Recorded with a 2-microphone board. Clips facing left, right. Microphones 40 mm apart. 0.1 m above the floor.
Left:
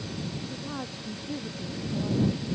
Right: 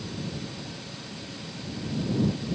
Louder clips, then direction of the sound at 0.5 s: Left 3 dB; 80° left.